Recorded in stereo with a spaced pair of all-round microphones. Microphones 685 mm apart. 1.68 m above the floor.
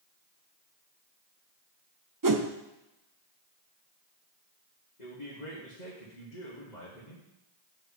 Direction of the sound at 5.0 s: 85° left.